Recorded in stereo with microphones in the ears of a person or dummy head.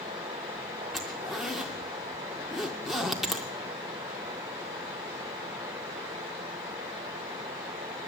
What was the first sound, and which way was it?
A zipper, centre (ahead or behind).